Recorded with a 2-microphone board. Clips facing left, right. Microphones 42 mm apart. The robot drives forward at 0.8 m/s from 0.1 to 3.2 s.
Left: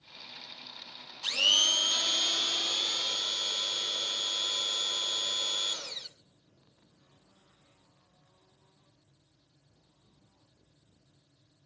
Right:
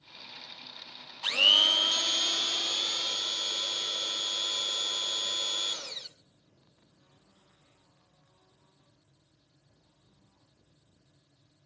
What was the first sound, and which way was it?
A blender, 25° right (ahead or behind).